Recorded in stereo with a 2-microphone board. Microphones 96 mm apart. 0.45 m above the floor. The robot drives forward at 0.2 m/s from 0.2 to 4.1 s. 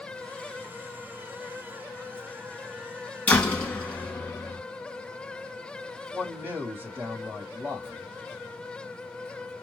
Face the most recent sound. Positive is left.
turn(degrees=-20)  # may be behind; listen again after turning